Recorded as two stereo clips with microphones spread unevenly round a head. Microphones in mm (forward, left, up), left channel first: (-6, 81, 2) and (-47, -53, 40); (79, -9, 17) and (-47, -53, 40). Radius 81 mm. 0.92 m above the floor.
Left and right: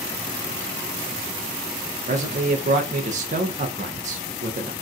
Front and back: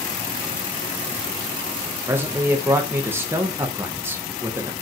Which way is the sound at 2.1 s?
80° right.